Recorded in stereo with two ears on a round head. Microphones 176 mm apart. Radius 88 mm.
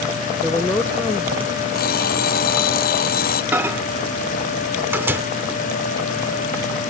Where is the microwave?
10° right (ahead or behind).